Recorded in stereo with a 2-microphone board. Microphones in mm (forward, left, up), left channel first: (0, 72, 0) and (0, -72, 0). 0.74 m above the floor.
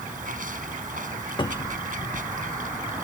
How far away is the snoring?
No snoring in this recording.